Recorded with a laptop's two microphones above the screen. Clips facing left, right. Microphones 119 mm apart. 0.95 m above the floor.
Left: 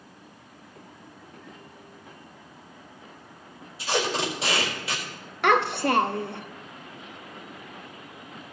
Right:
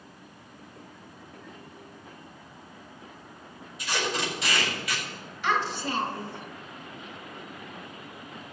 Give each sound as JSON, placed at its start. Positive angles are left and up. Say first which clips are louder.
{"t": 3.8, "sound": "tape being pulled", "louder": "left 4 dB", "side_deg": 30, "distance_m": 4.5}
{"t": 5.4, "sound": "a child speaking", "louder": "left 6 dB", "side_deg": 65, "distance_m": 0.6}